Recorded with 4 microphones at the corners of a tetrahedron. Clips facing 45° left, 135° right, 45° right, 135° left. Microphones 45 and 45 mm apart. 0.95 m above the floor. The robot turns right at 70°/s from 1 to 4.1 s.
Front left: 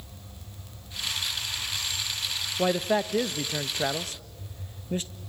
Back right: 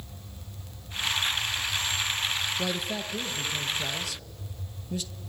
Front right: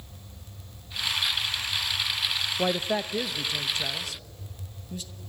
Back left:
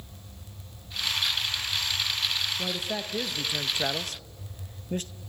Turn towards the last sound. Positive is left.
turn(degrees=100)